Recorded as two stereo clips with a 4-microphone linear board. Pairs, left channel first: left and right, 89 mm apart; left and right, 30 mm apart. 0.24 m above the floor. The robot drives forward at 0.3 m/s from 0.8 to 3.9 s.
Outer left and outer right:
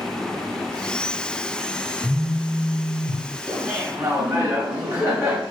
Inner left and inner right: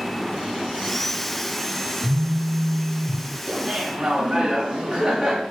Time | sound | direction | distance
2.0 | a phone buzzing | 20° left (ahead or behind) | 1.2 m
3.5 | laughter | 25° right (ahead or behind) | 1.3 m